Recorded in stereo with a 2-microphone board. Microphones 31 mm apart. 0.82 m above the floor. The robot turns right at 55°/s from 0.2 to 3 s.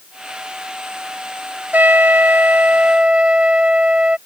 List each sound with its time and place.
1.7 s a trumpet: 105° right; by 4.2 s 35° right